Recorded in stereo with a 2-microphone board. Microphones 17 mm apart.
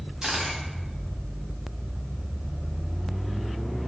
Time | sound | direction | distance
0.2 | a camera shutter | 60° right (ahead or behind) | 2.5 m